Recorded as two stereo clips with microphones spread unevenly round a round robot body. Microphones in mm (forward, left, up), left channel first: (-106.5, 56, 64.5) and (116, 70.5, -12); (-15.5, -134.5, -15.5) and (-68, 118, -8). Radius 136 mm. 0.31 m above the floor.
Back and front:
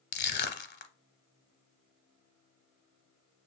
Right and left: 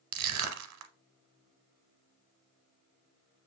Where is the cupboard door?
No cupboard door in this recording.